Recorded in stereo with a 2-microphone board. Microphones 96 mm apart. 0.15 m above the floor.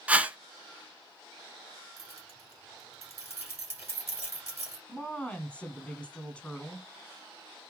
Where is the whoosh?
15° right (ahead or behind), 0.6 m.